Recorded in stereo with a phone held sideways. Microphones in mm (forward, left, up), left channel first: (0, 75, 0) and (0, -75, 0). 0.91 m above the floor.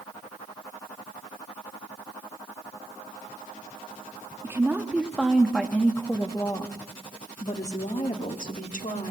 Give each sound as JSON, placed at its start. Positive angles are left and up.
{"t": 4.4, "sound": "a woman speaking", "side_deg": -15, "distance_m": 2.0}